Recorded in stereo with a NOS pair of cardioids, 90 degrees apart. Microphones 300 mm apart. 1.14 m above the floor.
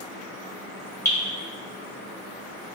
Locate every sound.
1.1 s dripping: 10° left, 1.8 m